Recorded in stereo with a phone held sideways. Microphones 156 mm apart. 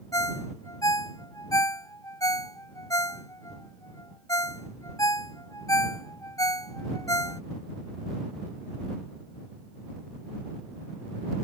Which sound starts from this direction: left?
A ringtone, at 0.1 s.